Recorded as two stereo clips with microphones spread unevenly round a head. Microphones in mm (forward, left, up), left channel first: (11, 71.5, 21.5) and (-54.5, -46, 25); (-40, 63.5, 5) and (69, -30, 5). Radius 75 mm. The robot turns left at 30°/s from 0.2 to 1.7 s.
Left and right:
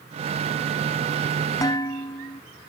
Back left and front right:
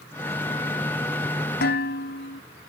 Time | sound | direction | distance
1.6 | dishes clattering | 125° left | ?